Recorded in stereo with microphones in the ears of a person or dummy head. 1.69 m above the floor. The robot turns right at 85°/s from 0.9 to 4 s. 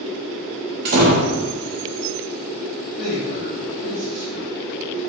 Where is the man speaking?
140° left, 1.3 m; by 5.1 s 135° right, 1.3 m.